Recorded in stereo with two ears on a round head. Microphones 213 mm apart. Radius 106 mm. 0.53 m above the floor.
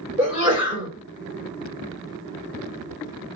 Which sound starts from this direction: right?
A sneeze, at 0.2 s.